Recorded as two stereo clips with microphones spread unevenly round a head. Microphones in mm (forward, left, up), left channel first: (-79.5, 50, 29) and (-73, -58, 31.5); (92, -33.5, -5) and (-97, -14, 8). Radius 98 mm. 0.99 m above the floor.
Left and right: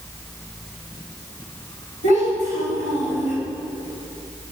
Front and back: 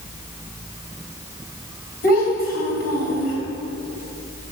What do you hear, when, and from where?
2.0 s a child speaking: 45° right, 3.5 m